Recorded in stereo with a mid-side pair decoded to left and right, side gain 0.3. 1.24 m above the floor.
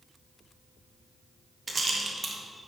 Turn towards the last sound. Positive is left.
turn(degrees=-45)